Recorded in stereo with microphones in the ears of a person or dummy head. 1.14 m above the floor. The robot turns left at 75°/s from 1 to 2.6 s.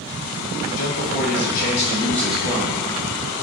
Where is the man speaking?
95° left, 2.5 m; by 2.8 s 25° right, 2.5 m.